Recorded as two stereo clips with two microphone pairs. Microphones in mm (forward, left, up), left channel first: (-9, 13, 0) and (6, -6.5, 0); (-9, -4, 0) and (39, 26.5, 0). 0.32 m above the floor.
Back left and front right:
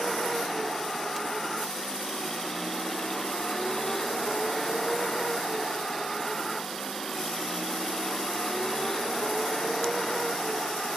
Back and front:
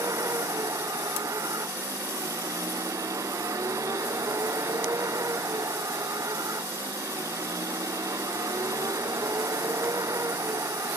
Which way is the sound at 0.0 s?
55° left.